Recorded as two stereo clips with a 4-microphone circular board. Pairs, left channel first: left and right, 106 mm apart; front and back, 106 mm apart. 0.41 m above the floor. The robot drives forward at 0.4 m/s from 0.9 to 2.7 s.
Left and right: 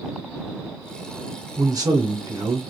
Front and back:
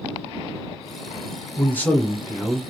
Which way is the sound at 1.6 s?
55° right.